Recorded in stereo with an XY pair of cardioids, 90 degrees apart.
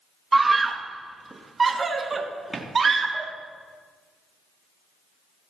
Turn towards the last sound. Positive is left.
turn(degrees=-45)